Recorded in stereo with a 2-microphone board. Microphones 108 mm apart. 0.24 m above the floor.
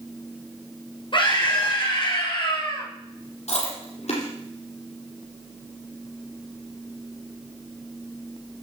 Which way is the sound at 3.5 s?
75° left (ahead or behind).